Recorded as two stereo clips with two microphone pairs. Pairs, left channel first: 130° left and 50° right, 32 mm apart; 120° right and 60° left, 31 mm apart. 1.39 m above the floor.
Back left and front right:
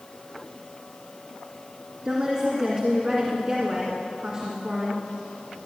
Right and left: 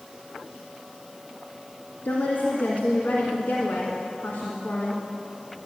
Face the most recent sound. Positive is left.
turn(degrees=-125)